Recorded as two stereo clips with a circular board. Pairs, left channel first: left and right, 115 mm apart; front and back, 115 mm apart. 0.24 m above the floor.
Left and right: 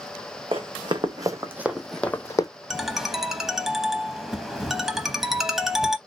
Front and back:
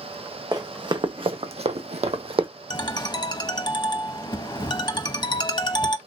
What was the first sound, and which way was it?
Running footsteps, 125° right.